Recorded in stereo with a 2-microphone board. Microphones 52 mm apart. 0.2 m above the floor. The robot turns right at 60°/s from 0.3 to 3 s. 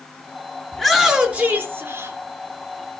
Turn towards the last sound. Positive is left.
turn(degrees=-50)